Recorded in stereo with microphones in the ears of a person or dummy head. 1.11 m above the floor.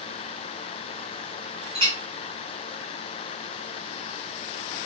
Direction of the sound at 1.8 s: 30° right (ahead or behind).